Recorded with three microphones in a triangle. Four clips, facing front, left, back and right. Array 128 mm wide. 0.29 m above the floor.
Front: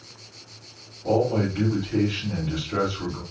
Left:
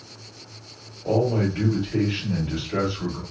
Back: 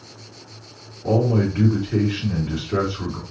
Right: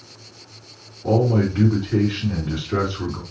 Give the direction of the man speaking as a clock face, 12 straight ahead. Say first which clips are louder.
Right 3 dB, back 2 dB; 4 o'clock.